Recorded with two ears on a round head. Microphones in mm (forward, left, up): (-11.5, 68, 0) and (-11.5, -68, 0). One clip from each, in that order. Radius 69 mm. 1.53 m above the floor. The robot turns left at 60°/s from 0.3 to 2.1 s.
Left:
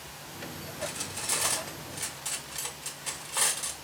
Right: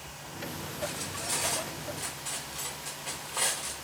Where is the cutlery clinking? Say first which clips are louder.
Left 1 dB; 35° left (ahead or behind), 0.9 m; by 3.8 s 30° left (ahead or behind), 0.9 m.